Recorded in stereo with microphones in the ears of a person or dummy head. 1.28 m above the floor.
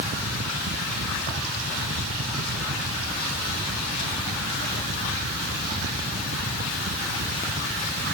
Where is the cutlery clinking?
I don't hear cutlery clinking.